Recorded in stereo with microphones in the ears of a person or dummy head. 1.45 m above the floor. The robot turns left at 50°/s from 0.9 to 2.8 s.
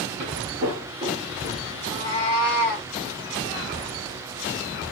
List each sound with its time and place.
0.2 s footsteps: 30° right (ahead or behind), 1.7 m; by 1.6 s centre (ahead or behind), 1.9 m
1.8 s a cat meowing: 110° left, 1.7 m; by 2.9 s 60° left, 1.7 m